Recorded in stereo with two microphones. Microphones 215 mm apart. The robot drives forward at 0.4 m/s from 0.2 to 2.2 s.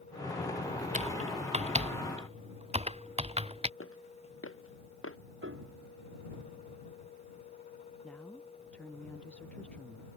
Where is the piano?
75° right (ahead or behind).